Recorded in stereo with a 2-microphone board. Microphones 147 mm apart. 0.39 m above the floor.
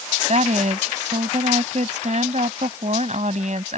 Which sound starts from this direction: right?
A woman speaking, at 0.3 s.